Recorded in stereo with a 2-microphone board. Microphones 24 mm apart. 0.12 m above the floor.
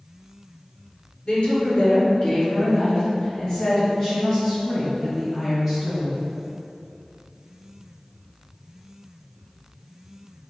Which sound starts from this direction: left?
A woman speaking, at 1.2 s.